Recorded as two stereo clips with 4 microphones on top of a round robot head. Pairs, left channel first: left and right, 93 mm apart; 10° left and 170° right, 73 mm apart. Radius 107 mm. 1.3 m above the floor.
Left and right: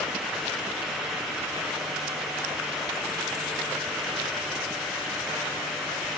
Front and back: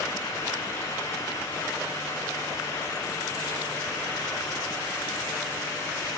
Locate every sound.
Only background noise.